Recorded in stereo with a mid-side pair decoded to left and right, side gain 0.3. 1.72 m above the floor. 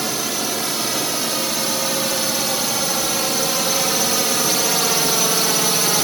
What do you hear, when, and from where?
0.0 s a drone: 35° right; by 6.0 s 30° right